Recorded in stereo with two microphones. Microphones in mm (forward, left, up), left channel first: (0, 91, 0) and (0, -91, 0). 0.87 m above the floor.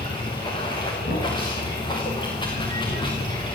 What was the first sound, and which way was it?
Running water, 25° left (ahead or behind).